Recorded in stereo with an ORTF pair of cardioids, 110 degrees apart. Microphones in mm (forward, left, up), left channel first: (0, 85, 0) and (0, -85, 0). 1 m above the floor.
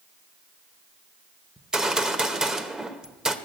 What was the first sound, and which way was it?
A gunshot, 5° right.